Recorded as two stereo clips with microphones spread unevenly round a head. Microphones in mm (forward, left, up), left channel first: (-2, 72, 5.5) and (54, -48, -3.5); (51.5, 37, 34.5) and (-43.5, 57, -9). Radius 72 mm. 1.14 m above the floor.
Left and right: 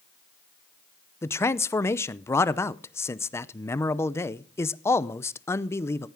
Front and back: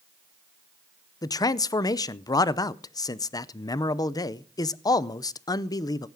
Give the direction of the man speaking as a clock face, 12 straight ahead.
10 o'clock.